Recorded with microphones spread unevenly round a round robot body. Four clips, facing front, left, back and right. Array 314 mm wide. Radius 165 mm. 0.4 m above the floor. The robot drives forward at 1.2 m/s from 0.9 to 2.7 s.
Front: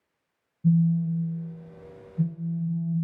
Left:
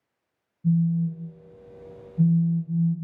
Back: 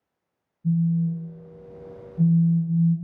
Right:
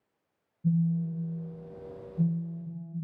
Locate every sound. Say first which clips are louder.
0.6 s a phone buzzing: left 5 dB, front 1 dB; 10° right, 1.7 m; by 2.9 s 170° right, 1.4 m